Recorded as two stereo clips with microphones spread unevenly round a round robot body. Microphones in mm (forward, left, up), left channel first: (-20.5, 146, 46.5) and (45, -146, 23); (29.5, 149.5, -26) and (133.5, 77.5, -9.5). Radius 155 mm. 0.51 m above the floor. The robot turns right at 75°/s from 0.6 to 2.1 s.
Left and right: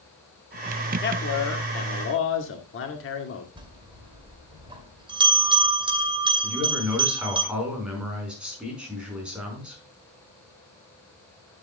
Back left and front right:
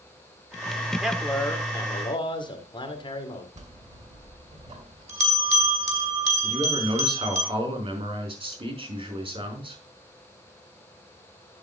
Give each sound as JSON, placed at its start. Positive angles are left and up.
{"t": 1.0, "sound": "a man speaking", "azimuth_deg": 55, "distance_m": 1.8}
{"t": 3.6, "sound": "a bell", "azimuth_deg": -5, "distance_m": 2.5}
{"t": 6.4, "sound": "a man speaking", "azimuth_deg": 10, "distance_m": 5.0}